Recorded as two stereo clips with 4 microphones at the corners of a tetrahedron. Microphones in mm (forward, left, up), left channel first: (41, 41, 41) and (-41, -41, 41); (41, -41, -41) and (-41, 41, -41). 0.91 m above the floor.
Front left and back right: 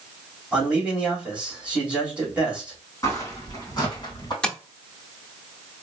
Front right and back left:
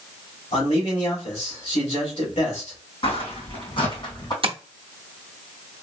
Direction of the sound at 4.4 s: 125° left.